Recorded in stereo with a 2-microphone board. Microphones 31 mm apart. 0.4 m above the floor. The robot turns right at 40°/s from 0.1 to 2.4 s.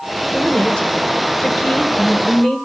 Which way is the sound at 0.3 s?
55° left.